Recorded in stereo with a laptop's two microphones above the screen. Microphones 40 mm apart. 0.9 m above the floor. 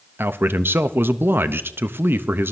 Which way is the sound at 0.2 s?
60° right (ahead or behind).